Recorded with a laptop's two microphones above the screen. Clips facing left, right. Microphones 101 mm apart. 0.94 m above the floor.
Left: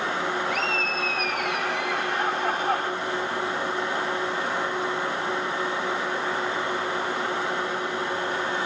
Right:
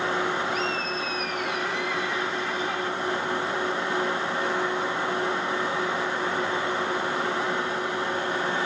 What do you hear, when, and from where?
0.5 s laughter: 80° left; by 2.9 s 50° left (ahead or behind)